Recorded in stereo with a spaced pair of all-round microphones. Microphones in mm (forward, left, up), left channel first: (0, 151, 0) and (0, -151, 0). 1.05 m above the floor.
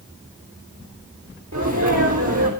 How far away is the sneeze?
About 4 m.